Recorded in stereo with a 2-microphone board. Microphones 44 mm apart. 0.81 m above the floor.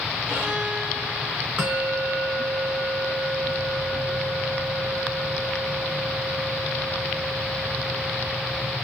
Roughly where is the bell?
Right.